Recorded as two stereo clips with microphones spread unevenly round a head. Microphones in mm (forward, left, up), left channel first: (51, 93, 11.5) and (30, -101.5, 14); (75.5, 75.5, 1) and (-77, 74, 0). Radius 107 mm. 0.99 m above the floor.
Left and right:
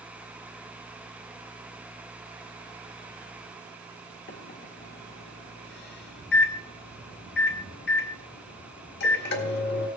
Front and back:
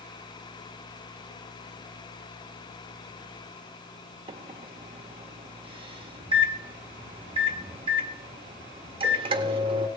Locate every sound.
4.3 s a microwave: 125° left, 1.7 m